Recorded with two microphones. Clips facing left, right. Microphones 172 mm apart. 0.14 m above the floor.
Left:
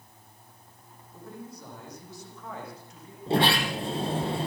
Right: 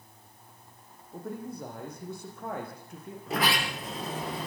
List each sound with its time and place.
1.1 s a man speaking: 55° right (ahead or behind), 8 m
3.3 s a sliding door: 30° left (ahead or behind), 3 m